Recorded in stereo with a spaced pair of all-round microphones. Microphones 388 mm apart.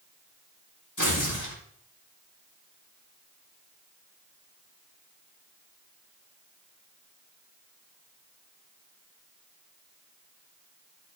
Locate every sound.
1.0 s tearing paper: 55° left (ahead or behind), 4 m